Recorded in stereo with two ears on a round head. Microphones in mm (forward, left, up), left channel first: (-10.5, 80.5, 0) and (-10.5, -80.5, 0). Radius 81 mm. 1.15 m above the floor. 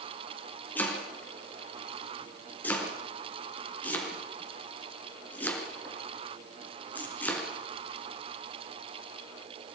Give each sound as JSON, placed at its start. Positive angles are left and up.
{"t": 0.8, "sound": "chopping", "side_deg": 10, "distance_m": 4.5}